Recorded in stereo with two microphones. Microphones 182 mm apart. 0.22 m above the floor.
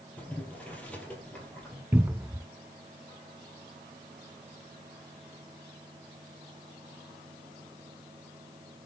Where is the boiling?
5° left (ahead or behind), 3 m.